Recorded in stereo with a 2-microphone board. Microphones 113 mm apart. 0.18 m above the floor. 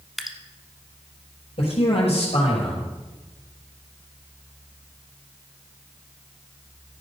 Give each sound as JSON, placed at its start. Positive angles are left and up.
{"t": 0.2, "sound": "dripping", "side_deg": 0, "distance_m": 1.0}
{"t": 1.6, "sound": "a man speaking", "side_deg": 70, "distance_m": 5.0}